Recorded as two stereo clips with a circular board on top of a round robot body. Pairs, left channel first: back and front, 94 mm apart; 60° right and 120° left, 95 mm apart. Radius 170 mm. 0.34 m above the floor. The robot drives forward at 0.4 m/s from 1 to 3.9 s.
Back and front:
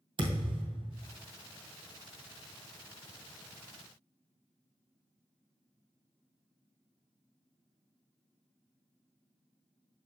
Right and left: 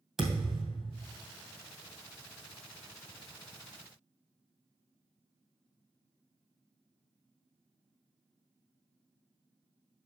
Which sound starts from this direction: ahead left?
A thud, at 0.2 s.